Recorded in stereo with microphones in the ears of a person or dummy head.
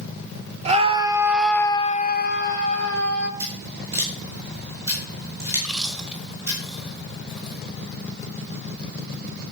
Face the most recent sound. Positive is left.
turn(degrees=0)  # may be behind; listen again after turning